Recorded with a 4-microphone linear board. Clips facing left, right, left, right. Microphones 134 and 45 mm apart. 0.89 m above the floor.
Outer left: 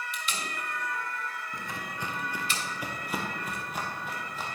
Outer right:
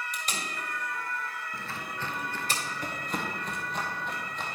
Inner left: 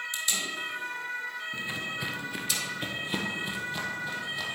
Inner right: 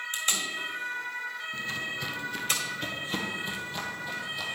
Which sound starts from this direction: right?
Tape being pulled, at 0.1 s.